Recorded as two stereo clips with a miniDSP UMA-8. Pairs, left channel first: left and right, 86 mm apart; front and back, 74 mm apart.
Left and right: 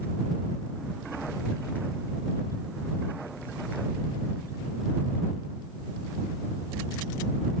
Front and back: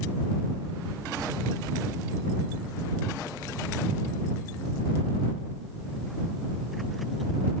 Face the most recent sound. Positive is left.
No sound to turn to.